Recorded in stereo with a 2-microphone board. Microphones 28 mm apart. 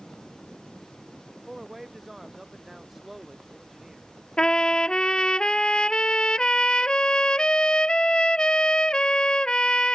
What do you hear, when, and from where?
1.5 s a man speaking: 5° right (ahead or behind)
4.4 s a trumpet: 35° left (ahead or behind)